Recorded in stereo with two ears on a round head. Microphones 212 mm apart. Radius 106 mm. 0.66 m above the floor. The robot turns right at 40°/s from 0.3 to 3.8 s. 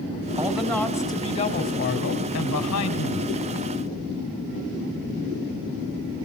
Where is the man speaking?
10° right, 3.5 m; by 3.3 s 105° left, 3.5 m.